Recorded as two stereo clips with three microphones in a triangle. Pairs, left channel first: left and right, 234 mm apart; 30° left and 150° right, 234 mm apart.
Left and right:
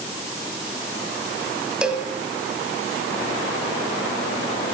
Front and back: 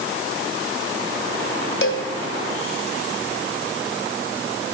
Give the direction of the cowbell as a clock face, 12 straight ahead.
12 o'clock.